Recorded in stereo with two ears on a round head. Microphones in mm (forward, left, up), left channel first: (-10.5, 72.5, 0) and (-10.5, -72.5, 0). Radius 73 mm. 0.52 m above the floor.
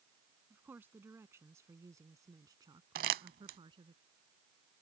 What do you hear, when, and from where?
0.5 s a woman speaking: 10° right (ahead or behind); by 4.0 s 30° right (ahead or behind)
3.0 s crumpling: 55° right (ahead or behind)